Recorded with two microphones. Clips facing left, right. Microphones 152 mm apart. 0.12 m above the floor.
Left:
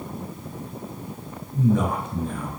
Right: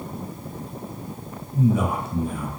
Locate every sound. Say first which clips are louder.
1.5 s a man speaking: even; 10° right (ahead or behind), 1.5 m